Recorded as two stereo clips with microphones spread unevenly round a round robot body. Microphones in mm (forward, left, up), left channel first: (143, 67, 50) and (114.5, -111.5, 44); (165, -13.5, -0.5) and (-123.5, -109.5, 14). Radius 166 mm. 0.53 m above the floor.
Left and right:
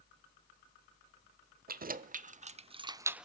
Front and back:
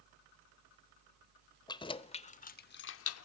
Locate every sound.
1.7 s keys jangling: 60° right, 1.2 m; by 3.2 s 15° right, 0.6 m